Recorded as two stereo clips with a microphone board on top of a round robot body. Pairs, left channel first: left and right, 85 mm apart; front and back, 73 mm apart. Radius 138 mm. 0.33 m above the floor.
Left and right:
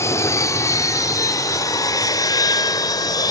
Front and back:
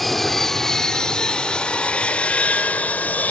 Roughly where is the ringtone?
I don't hear a ringtone.